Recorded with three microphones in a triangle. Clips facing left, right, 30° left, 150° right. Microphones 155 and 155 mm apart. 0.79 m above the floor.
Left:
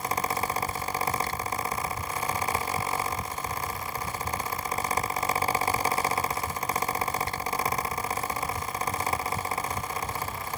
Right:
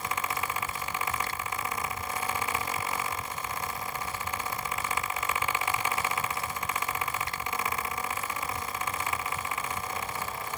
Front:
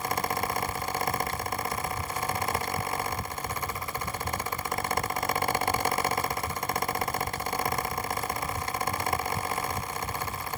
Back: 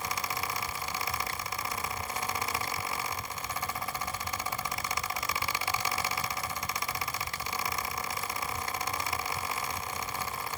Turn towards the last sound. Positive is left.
No sound to turn to.